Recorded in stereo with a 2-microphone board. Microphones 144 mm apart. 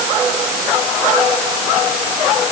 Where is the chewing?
No chewing in this recording.